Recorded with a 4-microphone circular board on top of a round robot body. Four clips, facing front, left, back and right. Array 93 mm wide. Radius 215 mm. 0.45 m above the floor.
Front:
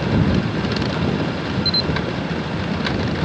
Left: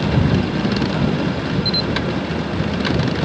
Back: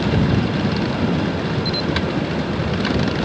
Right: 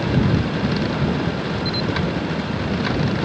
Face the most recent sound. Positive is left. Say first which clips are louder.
# left 1 dB, back 1 dB
turn(degrees=115)